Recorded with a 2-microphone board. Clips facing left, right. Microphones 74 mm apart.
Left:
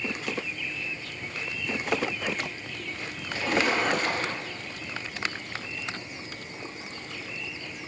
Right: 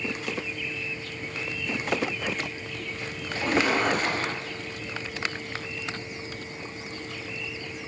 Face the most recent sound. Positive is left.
turn(degrees=-45)  # may be behind; listen again after turning